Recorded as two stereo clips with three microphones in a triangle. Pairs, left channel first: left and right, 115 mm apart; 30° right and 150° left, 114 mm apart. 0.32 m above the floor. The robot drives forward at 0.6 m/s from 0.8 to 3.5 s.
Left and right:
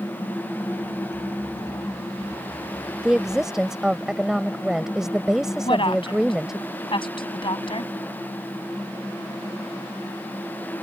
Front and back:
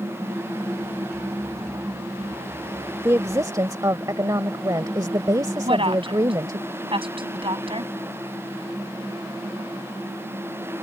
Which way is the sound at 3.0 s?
165° right.